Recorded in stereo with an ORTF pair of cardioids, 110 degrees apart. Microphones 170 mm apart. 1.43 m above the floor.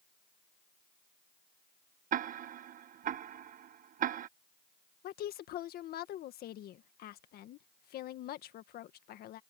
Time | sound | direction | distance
2.1 | ticking | 55° right | ?
5.0 | a woman speaking | 65° left | ?